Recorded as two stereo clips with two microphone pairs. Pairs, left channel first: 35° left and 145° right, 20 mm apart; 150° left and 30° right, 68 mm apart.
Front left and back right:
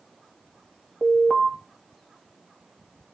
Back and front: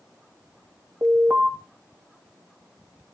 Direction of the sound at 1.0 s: 5° right.